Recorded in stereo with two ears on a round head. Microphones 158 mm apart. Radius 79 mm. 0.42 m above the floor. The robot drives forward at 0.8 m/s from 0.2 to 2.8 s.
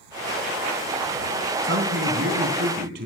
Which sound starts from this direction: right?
A man speaking, at 1.6 s.